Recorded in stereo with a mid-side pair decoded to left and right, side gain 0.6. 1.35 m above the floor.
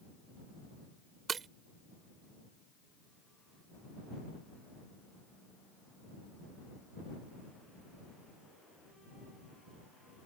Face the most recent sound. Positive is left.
turn(degrees=-35)